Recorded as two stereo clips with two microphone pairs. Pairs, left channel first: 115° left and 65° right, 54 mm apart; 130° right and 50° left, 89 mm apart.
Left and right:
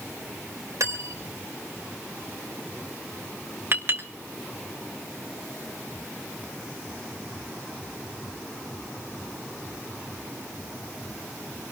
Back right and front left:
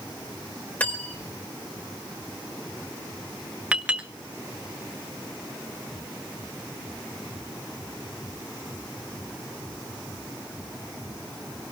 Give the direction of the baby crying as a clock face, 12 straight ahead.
I don't hear a baby crying.